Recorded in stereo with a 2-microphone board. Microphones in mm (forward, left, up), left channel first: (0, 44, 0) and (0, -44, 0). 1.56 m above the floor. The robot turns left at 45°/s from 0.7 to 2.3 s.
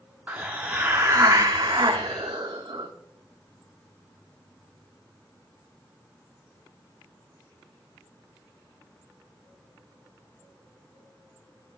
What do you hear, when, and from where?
0.3 s a hiss: 20° right, 0.8 m; by 2.9 s 90° right, 0.8 m